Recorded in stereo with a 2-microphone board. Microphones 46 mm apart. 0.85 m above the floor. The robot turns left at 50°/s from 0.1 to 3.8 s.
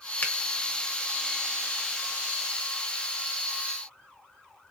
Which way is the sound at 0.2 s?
35° left (ahead or behind).